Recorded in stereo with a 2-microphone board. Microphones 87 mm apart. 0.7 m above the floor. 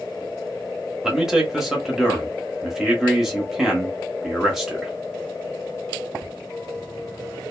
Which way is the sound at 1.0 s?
5° right (ahead or behind).